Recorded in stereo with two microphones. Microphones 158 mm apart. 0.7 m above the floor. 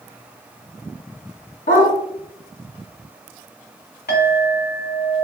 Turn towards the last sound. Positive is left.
turn(degrees=90)